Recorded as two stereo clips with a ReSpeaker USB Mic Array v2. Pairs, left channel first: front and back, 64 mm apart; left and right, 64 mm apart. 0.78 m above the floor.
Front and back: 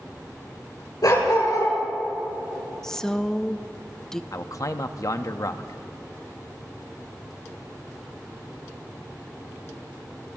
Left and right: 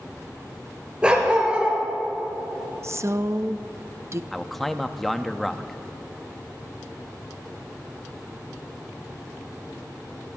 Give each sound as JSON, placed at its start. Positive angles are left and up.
{"t": 1.0, "sound": "a dog barking", "azimuth_deg": -15, "distance_m": 4.5}
{"t": 2.8, "sound": "a woman speaking", "azimuth_deg": -80, "distance_m": 0.5}
{"t": 4.3, "sound": "a man speaking", "azimuth_deg": 5, "distance_m": 0.7}